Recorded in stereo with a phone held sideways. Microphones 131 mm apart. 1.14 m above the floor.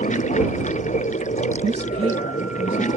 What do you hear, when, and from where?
0.0 s running water: 70° left (ahead or behind)
1.6 s a woman speaking: 55° right (ahead or behind)